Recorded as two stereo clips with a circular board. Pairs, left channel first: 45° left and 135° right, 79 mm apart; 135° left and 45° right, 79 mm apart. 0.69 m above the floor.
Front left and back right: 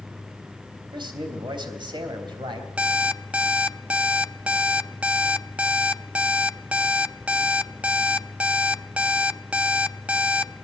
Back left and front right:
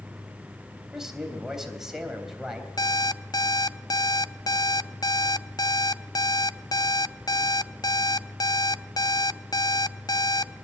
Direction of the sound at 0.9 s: 130° right.